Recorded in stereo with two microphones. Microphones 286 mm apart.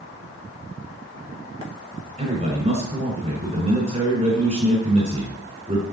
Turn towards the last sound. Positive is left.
turn(degrees=-25)  # may be behind; listen again after turning